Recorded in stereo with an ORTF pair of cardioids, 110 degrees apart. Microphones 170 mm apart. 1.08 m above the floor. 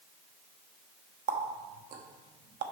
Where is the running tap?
55° right, 1.0 m.